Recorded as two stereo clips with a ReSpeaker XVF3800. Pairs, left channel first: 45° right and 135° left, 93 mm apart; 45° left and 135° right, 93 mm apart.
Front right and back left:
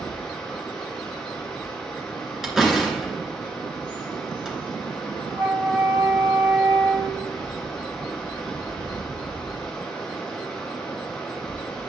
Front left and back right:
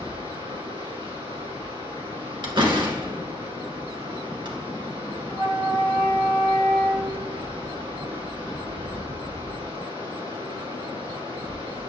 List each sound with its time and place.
0.0 s running water: 130° right, 3.5 m
2.4 s a door slam: 140° right, 2 m
5.3 s a flute: 175° left, 0.8 m